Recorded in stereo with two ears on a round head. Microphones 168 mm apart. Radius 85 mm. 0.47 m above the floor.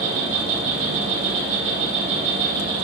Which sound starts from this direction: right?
An insect, at 0.0 s.